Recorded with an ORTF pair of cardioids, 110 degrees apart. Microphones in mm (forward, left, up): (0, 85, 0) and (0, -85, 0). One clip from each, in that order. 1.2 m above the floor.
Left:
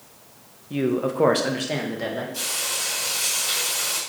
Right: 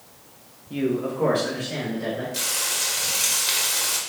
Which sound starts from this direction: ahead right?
Frying, at 2.3 s.